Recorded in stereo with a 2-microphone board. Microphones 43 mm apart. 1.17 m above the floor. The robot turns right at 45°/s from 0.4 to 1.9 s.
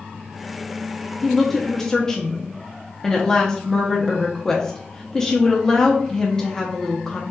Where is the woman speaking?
10° left (ahead or behind), 0.6 m; by 7.2 s 15° left (ahead or behind), 0.6 m.